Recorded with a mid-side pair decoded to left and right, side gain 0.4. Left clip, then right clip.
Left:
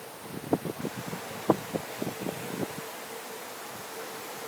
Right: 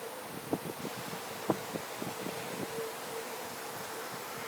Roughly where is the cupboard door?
I don't hear a cupboard door.